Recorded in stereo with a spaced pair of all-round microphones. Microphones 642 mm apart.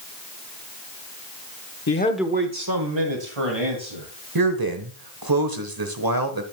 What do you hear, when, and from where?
1.9 s a man speaking: 25° left (ahead or behind), 0.8 m; by 4.1 s 60° right (ahead or behind), 2.5 m
4.3 s a man speaking: 35° right (ahead or behind), 1.0 m